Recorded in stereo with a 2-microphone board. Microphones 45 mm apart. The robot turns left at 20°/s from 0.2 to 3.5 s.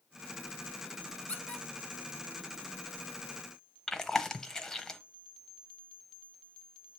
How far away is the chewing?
About 0.7 m.